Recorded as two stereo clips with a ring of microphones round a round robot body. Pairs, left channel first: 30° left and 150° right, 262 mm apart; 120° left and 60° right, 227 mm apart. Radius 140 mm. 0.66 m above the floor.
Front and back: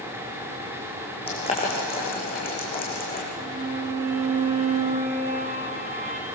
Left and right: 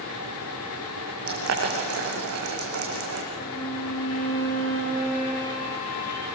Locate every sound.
1.3 s boiling: 40° right, 7 m
3.3 s a violin: 150° left, 7 m